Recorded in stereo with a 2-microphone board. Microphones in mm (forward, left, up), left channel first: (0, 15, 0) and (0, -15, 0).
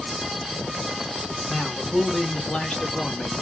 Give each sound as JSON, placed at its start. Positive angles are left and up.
{"t": 1.4, "sound": "a man speaking", "side_deg": 30, "distance_m": 1.9}